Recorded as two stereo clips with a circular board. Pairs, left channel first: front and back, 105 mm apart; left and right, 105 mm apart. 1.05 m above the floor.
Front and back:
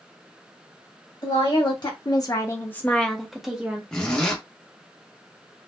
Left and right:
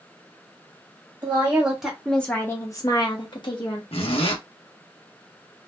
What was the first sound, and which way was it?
A woman speaking, 25° right.